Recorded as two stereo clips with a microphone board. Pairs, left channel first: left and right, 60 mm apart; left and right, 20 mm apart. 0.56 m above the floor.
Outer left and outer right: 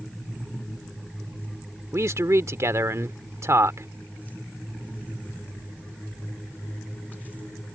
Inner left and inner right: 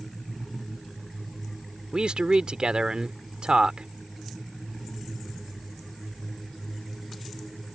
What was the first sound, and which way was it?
A man speaking, 55° right (ahead or behind).